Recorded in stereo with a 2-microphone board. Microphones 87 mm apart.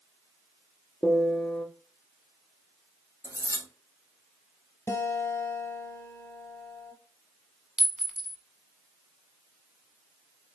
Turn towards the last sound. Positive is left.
turn(degrees=-5)  # may be behind; listen again after turning